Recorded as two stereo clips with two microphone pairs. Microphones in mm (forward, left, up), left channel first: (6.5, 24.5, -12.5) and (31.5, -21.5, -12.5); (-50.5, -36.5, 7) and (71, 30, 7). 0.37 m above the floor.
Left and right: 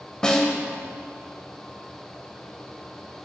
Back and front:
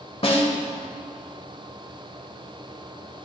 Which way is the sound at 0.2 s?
170° right.